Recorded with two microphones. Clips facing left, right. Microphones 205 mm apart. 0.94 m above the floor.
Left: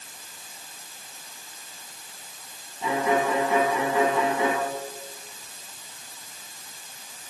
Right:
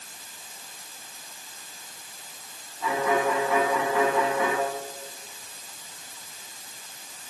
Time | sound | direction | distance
2.8 | a violin | 20° left (ahead or behind) | 8.5 m